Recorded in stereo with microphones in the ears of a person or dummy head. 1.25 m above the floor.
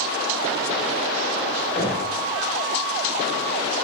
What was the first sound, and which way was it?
Knocking, 25° left (ahead or behind).